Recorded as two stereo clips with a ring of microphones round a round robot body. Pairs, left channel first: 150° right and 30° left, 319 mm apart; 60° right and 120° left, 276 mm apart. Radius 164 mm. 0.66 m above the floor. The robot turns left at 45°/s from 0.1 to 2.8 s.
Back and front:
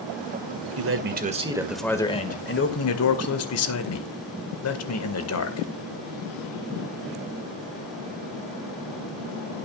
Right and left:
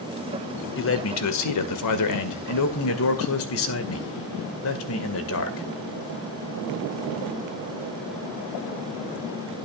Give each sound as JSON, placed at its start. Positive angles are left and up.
{"t": 0.8, "sound": "a man speaking", "azimuth_deg": -15, "distance_m": 2.0}